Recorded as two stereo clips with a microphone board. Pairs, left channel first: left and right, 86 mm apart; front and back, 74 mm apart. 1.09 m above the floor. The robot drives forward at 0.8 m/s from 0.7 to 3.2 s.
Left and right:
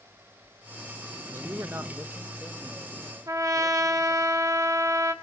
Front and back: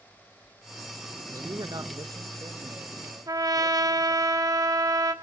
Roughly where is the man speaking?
Behind right.